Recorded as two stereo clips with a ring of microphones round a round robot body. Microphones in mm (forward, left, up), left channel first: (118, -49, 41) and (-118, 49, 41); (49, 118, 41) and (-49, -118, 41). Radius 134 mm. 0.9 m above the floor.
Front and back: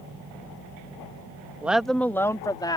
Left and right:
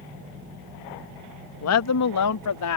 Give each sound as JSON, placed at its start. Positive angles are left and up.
{"t": 1.6, "sound": "a woman speaking", "azimuth_deg": 75}